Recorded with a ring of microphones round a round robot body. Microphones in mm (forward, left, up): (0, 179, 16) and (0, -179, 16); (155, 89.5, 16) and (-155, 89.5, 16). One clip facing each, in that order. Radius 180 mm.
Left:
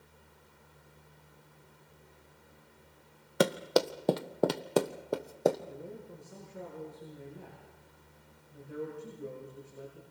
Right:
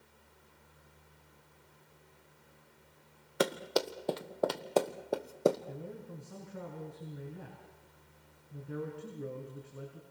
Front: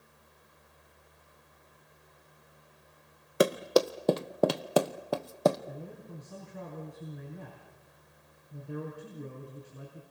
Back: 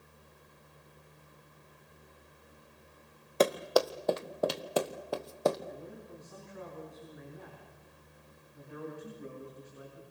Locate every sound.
3.4 s running footsteps: 75° left, 1.5 m; by 5.6 s 10° right, 1.5 m
5.7 s a man speaking: 60° right, 5.5 m